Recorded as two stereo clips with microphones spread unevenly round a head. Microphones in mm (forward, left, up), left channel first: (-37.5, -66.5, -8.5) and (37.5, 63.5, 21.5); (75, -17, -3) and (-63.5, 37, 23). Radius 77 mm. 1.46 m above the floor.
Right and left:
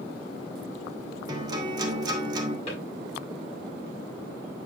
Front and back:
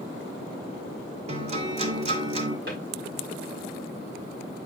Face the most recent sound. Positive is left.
turn(degrees=-175)